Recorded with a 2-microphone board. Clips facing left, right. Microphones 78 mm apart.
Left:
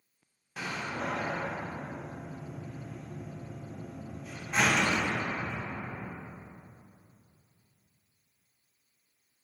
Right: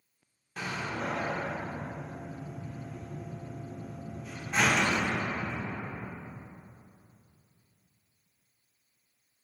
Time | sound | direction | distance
0.6 | a door slam | 5° left (ahead or behind) | 0.5 m